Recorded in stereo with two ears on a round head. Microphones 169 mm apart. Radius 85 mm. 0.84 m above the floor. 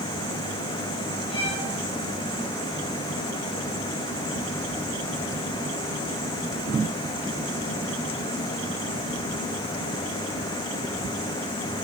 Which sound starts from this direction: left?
A violin, at 1.3 s.